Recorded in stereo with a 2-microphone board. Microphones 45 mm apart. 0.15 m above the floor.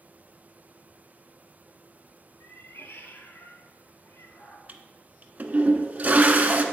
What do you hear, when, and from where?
2.4 s a cat meowing: 65° left (ahead or behind), 1.1 m
4.7 s a toilet flushing: 40° right (ahead or behind), 0.9 m